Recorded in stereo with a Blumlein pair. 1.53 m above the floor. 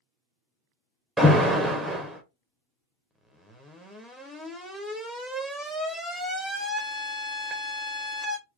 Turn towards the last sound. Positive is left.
turn(degrees=0)